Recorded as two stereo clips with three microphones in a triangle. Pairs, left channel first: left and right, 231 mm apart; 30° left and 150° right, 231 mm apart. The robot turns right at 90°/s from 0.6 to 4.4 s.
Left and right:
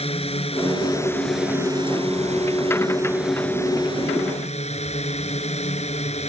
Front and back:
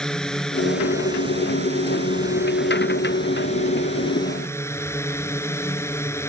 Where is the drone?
115° left; by 6.3 s 95° left.